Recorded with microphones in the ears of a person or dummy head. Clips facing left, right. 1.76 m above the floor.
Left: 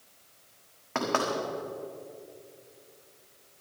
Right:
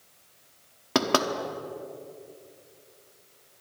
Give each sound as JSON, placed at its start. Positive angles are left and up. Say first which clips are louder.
{"t": 0.9, "sound": "knocking", "louder": "right 5 dB", "side_deg": -55, "distance_m": 1.2}